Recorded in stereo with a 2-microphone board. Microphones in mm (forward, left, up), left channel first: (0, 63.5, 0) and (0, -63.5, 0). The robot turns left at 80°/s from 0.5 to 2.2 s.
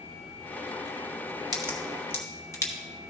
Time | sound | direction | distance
1.5 | a crack | 30° right (ahead or behind) | 1.4 m